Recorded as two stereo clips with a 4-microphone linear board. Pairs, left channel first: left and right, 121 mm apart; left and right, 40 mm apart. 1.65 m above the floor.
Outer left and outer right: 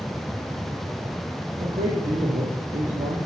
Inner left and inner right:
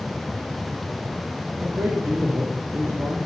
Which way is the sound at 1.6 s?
65° right (ahead or behind).